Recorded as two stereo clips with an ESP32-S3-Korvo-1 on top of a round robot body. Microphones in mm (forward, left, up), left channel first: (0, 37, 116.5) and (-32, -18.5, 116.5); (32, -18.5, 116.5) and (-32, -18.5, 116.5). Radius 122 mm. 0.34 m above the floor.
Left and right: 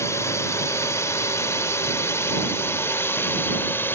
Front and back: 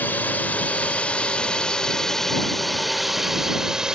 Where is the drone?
55° left; by 4.0 s 105° left.